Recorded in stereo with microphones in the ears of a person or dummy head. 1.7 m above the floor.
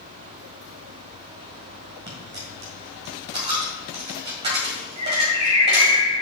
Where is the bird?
35° right (ahead or behind), 3.5 m.